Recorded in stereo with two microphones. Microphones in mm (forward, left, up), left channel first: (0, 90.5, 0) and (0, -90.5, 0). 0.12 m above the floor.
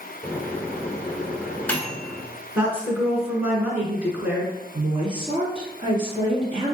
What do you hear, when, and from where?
0.2 s a microwave: 10° left (ahead or behind), 0.9 m
2.5 s a woman speaking: 10° right (ahead or behind), 1.3 m
4.7 s a woman speaking: 30° right (ahead or behind), 1.6 m